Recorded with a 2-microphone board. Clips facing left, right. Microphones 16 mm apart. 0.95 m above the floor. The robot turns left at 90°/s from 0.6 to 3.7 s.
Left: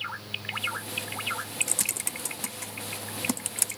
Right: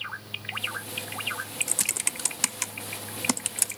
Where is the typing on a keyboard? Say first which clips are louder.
Right 3 dB; 5° left (ahead or behind), 0.6 m; by 3.8 s centre (ahead or behind), 0.6 m.